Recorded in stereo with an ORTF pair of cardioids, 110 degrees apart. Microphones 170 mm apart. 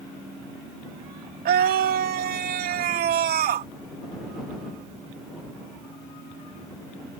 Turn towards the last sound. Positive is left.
turn(degrees=-60)